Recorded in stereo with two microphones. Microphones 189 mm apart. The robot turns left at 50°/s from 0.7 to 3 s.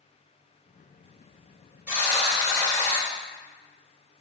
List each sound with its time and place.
1.9 s a buzzer: 10° right (ahead or behind), 1.2 m; by 3.1 s 15° left (ahead or behind), 1.2 m